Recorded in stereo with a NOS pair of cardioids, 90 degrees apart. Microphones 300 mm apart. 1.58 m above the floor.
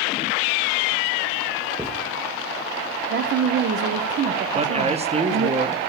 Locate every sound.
1.8 s writing: 5° left, 1.3 m
3.1 s a woman speaking: 40° right, 0.7 m
4.5 s a man speaking: 20° right, 1.1 m